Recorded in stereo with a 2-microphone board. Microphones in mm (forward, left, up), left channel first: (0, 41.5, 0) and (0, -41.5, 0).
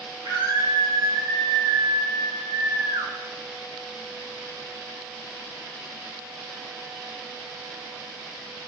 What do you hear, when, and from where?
0.2 s a scream: 45° right (ahead or behind), 8 m; by 3.1 s 60° right (ahead or behind), 7 m